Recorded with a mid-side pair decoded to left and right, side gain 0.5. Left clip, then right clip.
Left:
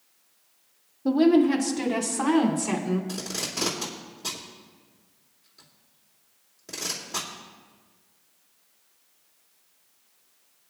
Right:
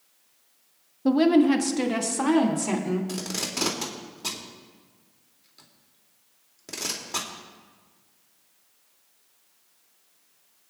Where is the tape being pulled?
30° right, 2.5 m.